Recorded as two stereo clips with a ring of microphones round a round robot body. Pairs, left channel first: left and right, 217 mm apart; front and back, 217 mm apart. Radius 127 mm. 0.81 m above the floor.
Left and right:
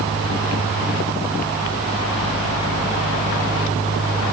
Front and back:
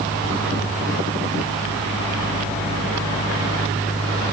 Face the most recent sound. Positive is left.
No sound to turn to.